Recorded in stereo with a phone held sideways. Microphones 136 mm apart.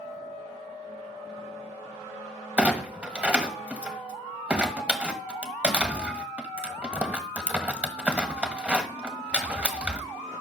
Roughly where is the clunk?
Centre.